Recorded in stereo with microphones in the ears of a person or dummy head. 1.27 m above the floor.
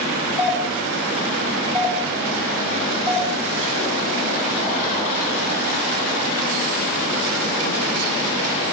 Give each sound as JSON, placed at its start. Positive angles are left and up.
{"t": 0.4, "sound": "a doorbell", "side_deg": 10, "distance_m": 8.0}